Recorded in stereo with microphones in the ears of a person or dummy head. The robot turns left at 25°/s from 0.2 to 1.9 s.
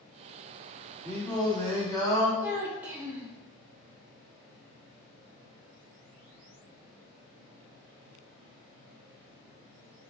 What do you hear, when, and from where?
1.0 s singing: 5° right (ahead or behind), 1.9 m; by 2.3 s 10° left (ahead or behind), 1.9 m
2.4 s a child speaking: 15° right (ahead or behind), 0.6 m